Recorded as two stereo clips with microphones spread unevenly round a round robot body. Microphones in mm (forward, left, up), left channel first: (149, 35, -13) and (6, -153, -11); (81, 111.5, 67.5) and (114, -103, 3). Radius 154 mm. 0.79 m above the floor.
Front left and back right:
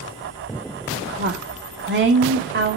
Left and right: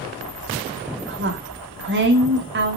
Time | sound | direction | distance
1.0 | a woman speaking | 90° right | 2 m